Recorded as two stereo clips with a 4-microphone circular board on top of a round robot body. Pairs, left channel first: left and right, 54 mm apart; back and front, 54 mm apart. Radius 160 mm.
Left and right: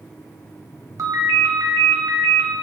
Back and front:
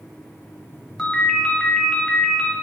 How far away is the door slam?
No door slam in this recording.